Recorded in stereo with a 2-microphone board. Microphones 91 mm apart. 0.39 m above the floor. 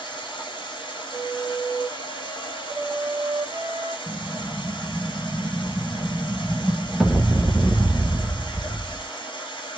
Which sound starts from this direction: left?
Running water, at 0.0 s.